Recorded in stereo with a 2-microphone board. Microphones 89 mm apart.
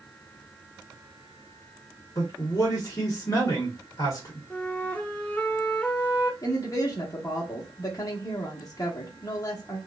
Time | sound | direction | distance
2.1 | a man speaking | 40° left (ahead or behind) | 0.8 m
4.5 | a flute | 15° left (ahead or behind) | 0.7 m
6.4 | a woman speaking | 40° left (ahead or behind) | 0.9 m